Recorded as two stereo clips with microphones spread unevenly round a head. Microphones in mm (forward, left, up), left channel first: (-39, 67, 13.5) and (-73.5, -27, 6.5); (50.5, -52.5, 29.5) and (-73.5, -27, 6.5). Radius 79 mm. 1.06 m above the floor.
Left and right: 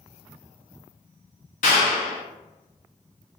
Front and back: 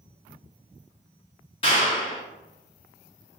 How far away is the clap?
About 0.8 m.